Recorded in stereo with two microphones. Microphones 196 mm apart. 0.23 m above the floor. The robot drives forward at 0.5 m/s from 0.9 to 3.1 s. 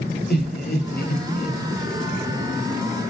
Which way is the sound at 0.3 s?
55° left (ahead or behind).